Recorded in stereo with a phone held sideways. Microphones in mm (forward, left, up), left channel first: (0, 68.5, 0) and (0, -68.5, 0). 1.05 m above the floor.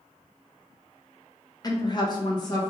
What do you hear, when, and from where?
1.6 s a woman speaking: 30° left (ahead or behind), 0.7 m